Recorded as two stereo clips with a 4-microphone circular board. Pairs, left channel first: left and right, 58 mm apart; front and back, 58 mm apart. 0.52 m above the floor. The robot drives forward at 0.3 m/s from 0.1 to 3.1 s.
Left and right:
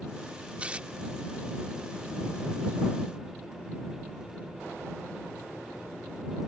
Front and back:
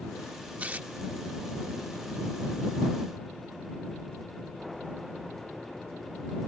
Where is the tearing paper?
135° right; by 0.9 s 140° right.